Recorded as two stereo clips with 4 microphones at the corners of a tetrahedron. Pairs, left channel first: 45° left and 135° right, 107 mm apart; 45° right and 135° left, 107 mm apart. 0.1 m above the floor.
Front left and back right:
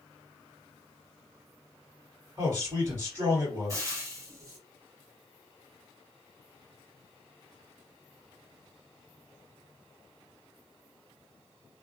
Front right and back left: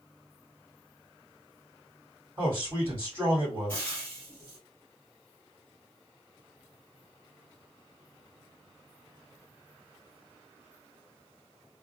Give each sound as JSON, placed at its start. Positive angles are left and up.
{"t": 2.4, "sound": "a man speaking", "azimuth_deg": -170, "distance_m": 2.5}
{"t": 3.7, "sound": "frying", "azimuth_deg": -105, "distance_m": 1.6}